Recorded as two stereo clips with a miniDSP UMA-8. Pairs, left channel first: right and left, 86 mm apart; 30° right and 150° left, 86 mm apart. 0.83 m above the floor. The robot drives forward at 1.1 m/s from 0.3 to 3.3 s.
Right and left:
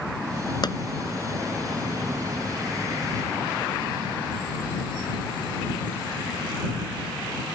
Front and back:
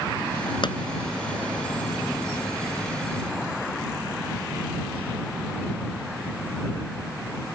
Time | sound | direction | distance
0.6 | a pop | 55° right | ?